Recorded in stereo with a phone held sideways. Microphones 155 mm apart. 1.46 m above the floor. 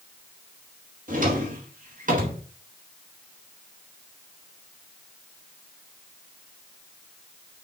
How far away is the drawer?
About 2.0 m.